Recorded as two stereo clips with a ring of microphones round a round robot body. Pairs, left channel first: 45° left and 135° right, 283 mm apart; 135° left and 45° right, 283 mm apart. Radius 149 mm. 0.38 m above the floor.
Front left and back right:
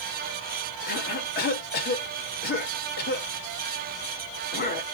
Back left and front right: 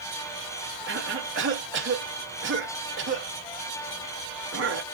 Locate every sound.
0.9 s a cough: 5° right, 2 m